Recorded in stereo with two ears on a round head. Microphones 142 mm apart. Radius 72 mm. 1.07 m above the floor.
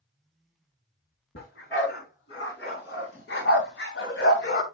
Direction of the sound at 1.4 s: 65° left (ahead or behind).